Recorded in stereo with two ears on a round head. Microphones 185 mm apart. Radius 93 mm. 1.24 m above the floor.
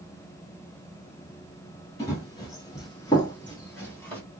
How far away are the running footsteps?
About 1.7 m.